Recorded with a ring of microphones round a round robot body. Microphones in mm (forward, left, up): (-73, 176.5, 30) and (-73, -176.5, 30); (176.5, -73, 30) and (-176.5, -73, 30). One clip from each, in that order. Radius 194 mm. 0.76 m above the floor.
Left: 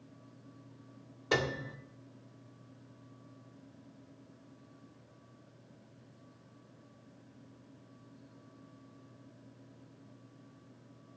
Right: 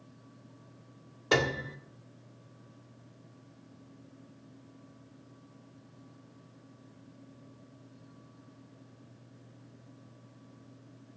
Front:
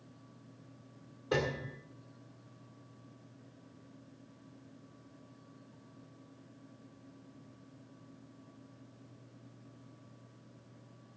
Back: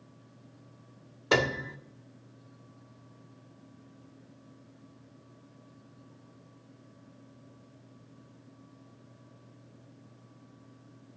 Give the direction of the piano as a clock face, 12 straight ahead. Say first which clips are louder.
Right 4 dB, back 7 dB; 6 o'clock.